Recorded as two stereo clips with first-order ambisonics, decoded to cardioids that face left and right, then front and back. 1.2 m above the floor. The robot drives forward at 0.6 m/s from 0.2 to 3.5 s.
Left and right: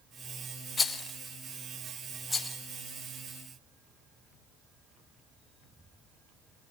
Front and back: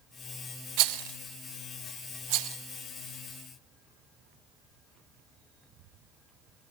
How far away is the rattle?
About 0.8 m.